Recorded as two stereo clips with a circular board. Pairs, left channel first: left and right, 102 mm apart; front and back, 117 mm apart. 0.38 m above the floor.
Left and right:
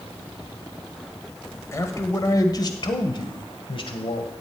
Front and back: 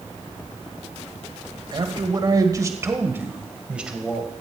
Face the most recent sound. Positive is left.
turn(degrees=90)